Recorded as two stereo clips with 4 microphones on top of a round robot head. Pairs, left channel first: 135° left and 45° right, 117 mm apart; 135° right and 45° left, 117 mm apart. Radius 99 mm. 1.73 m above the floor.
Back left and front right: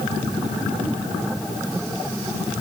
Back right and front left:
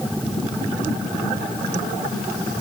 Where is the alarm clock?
I don't hear an alarm clock.